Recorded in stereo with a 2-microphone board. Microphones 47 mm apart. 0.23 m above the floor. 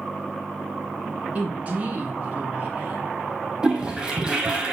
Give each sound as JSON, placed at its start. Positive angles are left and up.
{"t": 1.4, "sound": "a woman speaking", "side_deg": -35, "distance_m": 2.5}
{"t": 3.6, "sound": "a toilet flushing", "side_deg": -20, "distance_m": 1.3}